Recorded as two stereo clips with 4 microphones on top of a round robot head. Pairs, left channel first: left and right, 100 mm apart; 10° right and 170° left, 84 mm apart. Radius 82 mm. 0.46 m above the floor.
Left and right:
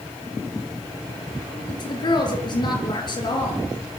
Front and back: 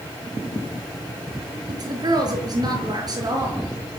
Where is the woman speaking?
130° left, 7 m.